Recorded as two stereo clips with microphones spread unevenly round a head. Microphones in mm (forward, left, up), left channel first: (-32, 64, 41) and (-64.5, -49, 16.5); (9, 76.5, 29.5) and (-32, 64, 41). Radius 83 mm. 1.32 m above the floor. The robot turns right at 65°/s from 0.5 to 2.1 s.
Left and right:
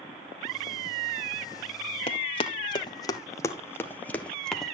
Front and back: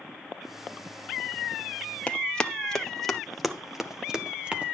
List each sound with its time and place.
2.1 s running footsteps: 85° left, 2 m; by 4.7 s 155° left, 2 m